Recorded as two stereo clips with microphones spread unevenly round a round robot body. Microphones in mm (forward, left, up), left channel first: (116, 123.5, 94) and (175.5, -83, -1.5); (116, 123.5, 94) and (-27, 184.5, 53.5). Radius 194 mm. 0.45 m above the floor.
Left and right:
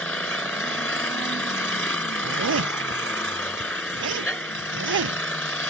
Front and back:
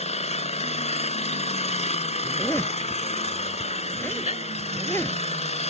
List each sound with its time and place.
0.0 s an engine running: 20° left
2.2 s a zipper: 105° right